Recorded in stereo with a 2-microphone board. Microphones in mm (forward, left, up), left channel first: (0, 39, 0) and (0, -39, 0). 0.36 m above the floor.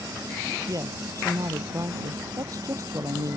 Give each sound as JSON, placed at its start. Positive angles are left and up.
{"t": 0.7, "sound": "a woman speaking", "side_deg": -45}